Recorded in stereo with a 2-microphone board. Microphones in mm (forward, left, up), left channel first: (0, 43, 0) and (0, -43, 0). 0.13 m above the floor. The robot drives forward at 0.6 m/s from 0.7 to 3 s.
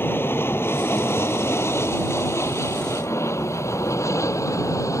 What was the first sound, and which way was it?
An aircraft, 25° left (ahead or behind).